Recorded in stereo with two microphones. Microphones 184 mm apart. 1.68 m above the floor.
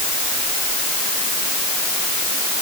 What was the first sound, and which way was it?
Only background noise.